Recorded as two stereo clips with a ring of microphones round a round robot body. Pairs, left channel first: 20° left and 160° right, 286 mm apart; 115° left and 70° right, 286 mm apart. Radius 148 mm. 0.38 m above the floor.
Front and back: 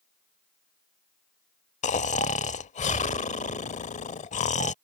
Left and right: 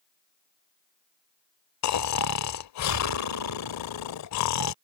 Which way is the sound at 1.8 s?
85° left.